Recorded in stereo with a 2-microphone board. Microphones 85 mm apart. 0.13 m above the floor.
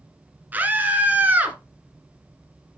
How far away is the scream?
About 1.9 m.